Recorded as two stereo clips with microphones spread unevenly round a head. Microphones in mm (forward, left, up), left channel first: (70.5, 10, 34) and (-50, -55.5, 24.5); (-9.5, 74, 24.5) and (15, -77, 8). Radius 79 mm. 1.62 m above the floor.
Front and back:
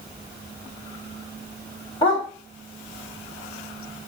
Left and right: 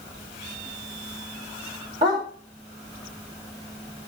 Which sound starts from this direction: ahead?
A dog barking, at 2.0 s.